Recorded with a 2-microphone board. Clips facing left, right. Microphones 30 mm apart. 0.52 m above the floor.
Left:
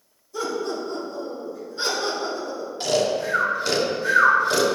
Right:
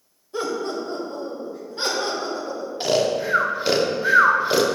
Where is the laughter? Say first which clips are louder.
Right 1 dB; 45° right (ahead or behind), 1.9 m.